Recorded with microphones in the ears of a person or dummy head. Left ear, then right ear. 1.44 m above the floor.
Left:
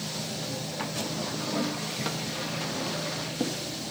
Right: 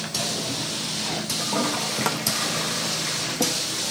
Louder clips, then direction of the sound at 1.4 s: Right 8 dB; 30° right (ahead or behind).